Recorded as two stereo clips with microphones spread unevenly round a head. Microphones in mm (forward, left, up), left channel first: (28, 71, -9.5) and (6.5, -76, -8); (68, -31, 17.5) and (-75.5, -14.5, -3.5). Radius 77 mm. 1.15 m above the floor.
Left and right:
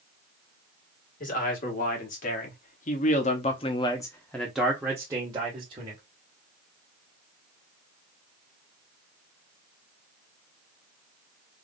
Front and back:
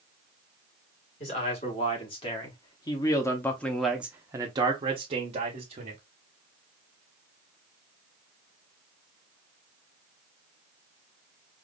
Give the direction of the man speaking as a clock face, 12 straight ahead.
10 o'clock.